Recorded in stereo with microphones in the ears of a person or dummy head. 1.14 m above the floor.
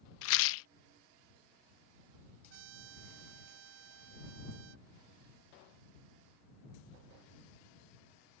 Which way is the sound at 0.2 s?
75° left (ahead or behind).